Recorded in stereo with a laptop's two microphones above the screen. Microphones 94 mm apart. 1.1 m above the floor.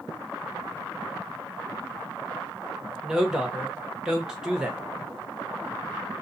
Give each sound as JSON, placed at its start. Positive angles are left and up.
{"t": 3.0, "sound": "a woman speaking", "side_deg": -5, "distance_m": 0.9}